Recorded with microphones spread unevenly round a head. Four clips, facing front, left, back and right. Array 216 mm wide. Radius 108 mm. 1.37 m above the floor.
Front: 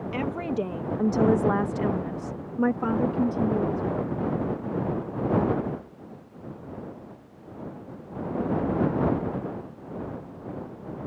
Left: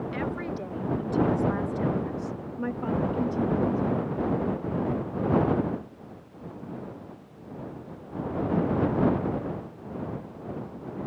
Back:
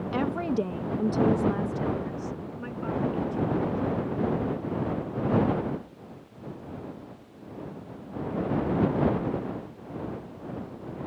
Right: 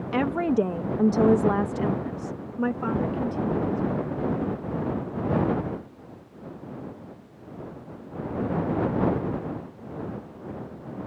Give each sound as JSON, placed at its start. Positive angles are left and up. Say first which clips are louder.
{"t": 0.1, "sound": "a woman speaking", "louder": "right 14 dB, back 2 dB", "azimuth_deg": -105}